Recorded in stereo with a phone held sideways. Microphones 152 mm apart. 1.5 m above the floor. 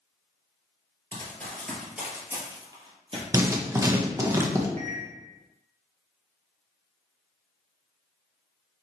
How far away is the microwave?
About 1.3 m.